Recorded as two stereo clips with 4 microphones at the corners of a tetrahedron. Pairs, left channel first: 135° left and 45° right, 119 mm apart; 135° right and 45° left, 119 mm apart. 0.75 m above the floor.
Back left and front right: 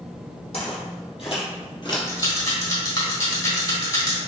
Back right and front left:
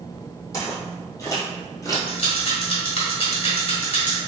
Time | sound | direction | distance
0.5 | footsteps | 165° left | 1.8 m
2.1 | a rattle | 170° right | 1.4 m